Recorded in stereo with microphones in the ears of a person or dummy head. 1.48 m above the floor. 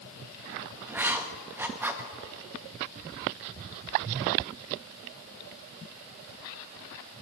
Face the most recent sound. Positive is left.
turn(degrees=-10)  # may be behind; listen again after turning